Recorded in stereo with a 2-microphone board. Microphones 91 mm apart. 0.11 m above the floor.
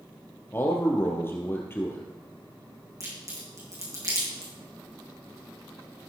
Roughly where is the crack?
Right.